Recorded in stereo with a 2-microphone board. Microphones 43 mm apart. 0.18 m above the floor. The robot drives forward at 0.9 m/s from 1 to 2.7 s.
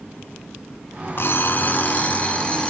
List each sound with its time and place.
1.2 s an alarm clock: 55° left (ahead or behind), 0.8 m; by 2.7 s 25° left (ahead or behind), 1.6 m